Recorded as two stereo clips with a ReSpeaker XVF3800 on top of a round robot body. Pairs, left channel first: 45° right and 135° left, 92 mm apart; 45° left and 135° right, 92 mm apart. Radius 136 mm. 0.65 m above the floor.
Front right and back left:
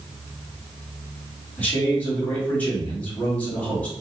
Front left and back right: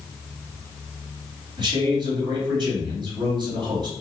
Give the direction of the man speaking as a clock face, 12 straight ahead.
4 o'clock.